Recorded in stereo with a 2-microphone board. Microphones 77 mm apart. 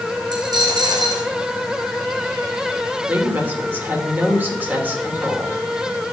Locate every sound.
0.3 s a dropped coin: 65° right (ahead or behind), 3 m
3.1 s a woman speaking: 25° right (ahead or behind), 2.5 m